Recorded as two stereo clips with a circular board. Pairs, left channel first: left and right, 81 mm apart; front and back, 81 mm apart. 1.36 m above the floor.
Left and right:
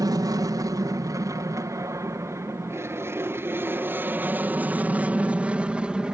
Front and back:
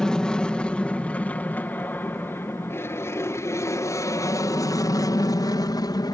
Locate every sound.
0.0 s an aircraft: 80° right; by 6.2 s 10° right